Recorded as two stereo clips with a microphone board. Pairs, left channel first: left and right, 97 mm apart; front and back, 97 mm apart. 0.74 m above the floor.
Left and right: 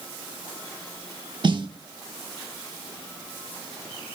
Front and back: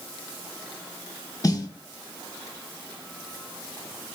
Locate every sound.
1.4 s a snare drum: 50° right, 0.7 m